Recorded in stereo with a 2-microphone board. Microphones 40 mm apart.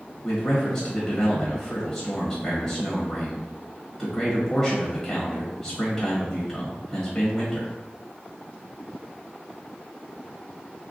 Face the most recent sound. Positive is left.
turn(degrees=10)  # may be behind; listen again after turning